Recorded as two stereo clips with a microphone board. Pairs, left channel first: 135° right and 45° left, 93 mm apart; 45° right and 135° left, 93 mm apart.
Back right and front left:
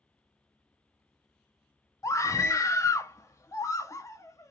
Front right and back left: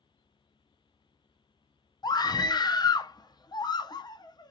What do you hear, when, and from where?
2.0 s a scream: 80° right, 0.7 m